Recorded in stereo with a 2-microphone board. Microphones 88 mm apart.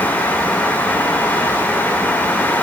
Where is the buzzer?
No buzzer in this recording.